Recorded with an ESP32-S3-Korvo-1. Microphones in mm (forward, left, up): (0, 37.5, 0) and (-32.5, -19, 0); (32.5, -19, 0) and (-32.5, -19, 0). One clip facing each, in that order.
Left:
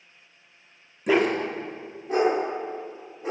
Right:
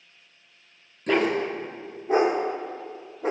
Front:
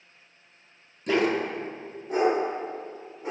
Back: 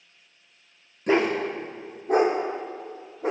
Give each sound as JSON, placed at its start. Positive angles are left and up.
{"t": 1.1, "sound": "a dog barking", "azimuth_deg": 135, "distance_m": 0.7}